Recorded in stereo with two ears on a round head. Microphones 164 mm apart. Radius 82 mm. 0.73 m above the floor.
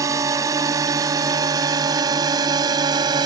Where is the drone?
15° right (ahead or behind); by 3.3 s 20° right (ahead or behind).